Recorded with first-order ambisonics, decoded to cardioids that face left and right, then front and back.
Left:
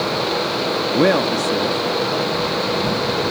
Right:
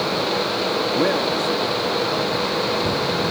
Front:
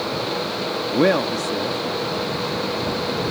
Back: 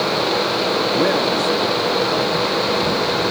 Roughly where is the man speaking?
Ahead left.